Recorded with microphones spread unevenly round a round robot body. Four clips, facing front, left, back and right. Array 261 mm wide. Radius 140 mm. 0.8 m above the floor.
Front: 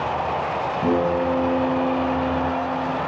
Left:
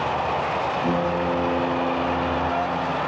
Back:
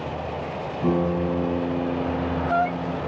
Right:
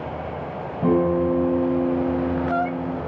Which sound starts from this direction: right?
A guitar, at 0.8 s.